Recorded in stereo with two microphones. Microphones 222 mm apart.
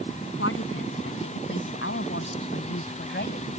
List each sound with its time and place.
0.4 s a woman speaking: 70° left (ahead or behind); by 3.5 s 50° left (ahead or behind)